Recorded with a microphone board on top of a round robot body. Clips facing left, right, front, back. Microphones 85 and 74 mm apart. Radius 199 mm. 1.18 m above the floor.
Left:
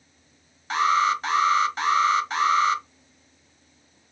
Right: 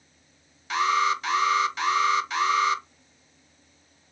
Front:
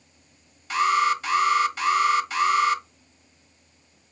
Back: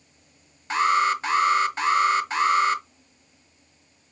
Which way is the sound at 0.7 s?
135° left.